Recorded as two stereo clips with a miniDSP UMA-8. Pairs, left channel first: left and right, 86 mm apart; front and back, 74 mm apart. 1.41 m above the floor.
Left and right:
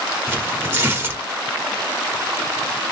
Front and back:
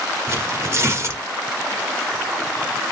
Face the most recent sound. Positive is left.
turn(degrees=-145)